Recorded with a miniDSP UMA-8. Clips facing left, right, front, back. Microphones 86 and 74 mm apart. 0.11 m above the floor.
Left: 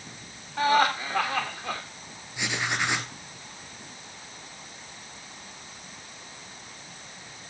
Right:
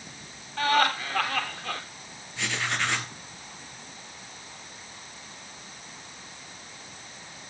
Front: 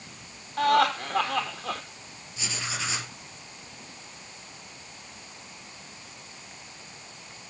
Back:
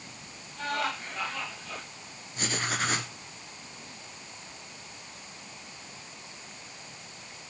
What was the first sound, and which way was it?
Laughter, 15° left.